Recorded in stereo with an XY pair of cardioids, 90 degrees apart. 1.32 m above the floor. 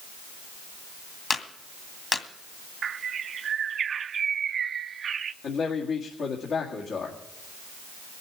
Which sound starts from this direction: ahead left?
A clap, at 1.3 s.